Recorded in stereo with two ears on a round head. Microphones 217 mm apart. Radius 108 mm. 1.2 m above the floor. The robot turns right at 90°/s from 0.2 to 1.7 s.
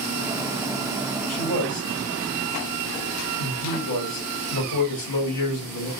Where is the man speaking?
60° left, 2.5 m; by 5.9 s 95° left, 2.5 m.